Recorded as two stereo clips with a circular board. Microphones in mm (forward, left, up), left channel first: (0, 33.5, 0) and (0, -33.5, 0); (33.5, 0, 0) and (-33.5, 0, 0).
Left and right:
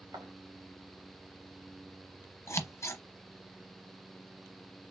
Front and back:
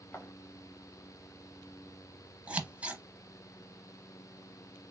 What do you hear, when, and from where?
0.1 s footsteps: 65° right, 2 m
2.5 s scissors: 115° left, 0.8 m